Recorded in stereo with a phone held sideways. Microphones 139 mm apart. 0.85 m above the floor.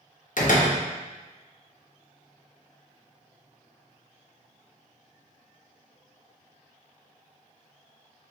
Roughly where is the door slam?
Left.